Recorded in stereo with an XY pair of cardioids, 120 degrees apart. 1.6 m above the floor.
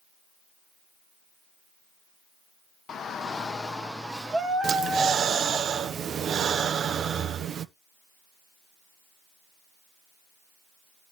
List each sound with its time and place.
2.9 s a shout: 45° left, 1.2 m; by 5.6 s 30° right, 2 m
4.6 s breathing: 45° right, 1.0 m